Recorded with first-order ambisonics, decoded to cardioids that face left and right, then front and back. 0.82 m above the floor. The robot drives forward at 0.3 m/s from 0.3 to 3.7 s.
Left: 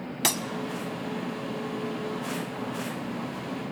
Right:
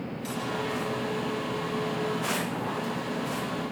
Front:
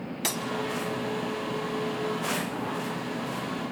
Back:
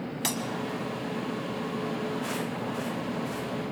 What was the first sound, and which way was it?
Breaking glass, 90° left.